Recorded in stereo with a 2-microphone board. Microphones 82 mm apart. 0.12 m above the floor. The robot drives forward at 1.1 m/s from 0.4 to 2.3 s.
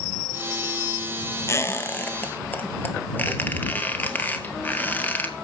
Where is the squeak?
35° left (ahead or behind), 1.0 m; by 5.3 s 20° left (ahead or behind), 1.6 m.